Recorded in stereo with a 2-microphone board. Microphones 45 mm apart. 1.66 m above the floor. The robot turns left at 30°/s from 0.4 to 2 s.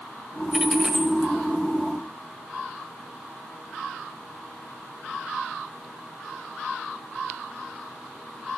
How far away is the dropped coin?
About 1.7 m.